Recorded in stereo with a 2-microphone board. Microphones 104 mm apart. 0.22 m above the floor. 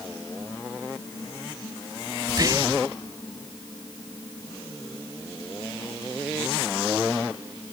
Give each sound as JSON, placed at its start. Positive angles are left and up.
{"t": 2.3, "sound": "whispering", "side_deg": -40, "distance_m": 1.3}